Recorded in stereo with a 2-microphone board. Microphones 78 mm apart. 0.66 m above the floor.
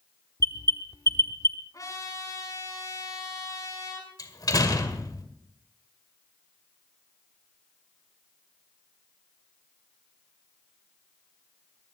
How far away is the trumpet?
About 7 m.